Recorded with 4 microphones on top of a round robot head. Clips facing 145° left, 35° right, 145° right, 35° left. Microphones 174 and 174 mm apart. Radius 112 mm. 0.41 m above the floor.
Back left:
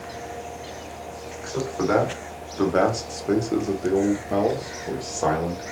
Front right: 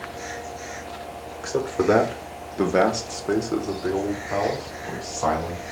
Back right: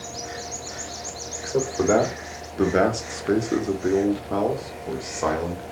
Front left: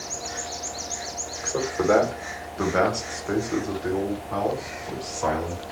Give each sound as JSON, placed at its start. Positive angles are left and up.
{"t": 1.4, "sound": "a man speaking", "azimuth_deg": -65, "distance_m": 1.3}